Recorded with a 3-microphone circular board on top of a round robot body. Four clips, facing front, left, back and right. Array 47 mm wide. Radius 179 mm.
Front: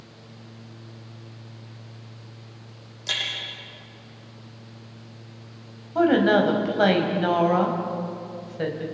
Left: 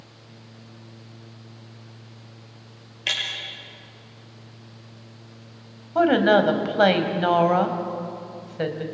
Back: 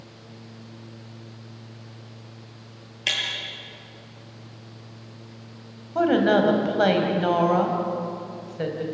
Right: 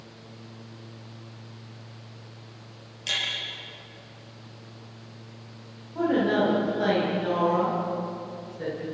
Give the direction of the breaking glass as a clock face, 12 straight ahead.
7 o'clock.